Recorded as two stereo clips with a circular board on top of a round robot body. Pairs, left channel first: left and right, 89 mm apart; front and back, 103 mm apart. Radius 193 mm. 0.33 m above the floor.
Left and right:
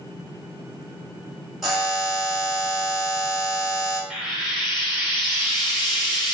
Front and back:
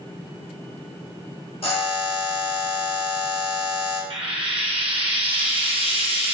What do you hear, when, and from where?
1.6 s a buzzer: straight ahead, 2.5 m
4.1 s frying: straight behind, 2.5 m